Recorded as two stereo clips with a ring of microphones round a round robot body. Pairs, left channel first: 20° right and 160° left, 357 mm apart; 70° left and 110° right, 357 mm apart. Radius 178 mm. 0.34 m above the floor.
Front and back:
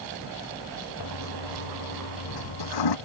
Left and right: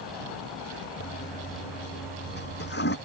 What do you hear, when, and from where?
1.0 s a toilet flushing: 5° left